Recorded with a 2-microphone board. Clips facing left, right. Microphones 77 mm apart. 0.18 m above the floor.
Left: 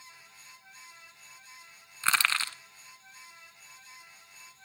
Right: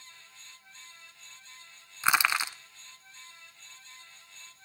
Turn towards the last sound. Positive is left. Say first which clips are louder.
# right 2 dB
turn(degrees=-15)  # may be behind; listen again after turning